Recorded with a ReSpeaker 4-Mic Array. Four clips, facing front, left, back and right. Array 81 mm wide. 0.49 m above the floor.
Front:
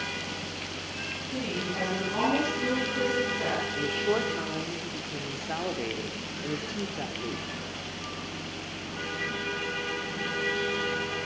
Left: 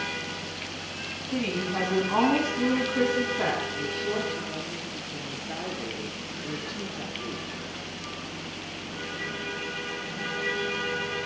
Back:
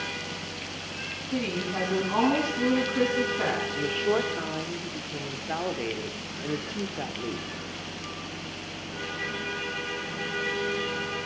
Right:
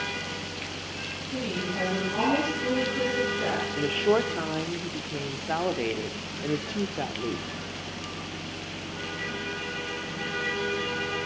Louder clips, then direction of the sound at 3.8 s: Right 6 dB, back 2 dB; 105° right.